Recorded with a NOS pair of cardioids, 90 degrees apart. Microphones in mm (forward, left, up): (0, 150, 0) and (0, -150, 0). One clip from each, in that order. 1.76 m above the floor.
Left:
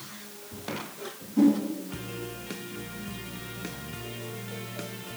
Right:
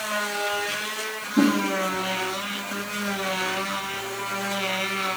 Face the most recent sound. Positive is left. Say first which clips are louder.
# right 2 dB
turn(degrees=-40)